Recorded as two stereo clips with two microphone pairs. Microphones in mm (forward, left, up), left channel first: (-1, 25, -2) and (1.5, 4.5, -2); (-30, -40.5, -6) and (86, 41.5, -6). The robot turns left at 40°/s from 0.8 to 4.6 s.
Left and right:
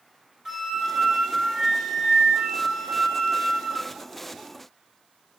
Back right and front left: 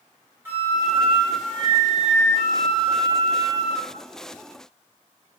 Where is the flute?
35° right, 1.4 m; by 3.9 s 155° right, 1.4 m.